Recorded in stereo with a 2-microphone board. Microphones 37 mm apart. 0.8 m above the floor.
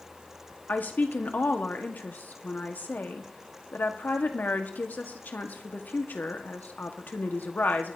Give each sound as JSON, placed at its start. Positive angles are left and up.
{"t": 0.7, "sound": "a woman speaking", "side_deg": 55, "distance_m": 1.6}